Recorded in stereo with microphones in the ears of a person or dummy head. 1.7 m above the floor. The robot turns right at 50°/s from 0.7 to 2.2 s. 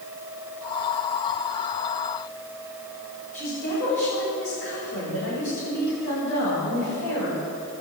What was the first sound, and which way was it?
A woman speaking, 60° left (ahead or behind).